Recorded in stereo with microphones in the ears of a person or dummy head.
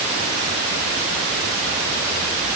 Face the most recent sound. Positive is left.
No sound to turn to.